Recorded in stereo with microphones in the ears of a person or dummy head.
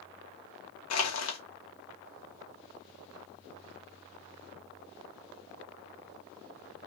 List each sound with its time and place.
0.9 s crushing: 75° left (ahead or behind), 1.2 m